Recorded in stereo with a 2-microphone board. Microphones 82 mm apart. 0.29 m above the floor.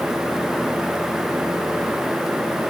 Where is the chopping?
I don't hear chopping.